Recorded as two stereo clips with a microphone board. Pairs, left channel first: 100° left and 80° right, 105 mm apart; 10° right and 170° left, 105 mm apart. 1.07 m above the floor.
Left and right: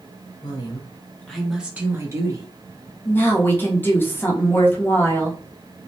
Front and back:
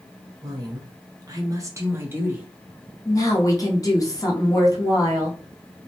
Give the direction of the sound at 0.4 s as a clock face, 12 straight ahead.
8 o'clock.